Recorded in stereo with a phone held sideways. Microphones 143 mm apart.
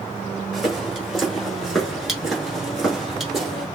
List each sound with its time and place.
0.5 s footsteps: centre (ahead or behind), 1.6 m